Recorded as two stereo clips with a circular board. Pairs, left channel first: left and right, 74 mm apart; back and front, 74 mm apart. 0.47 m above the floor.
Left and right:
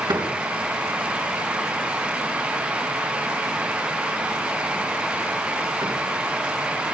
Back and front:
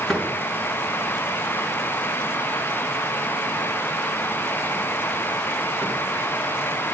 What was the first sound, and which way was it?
A door slam, 95° right.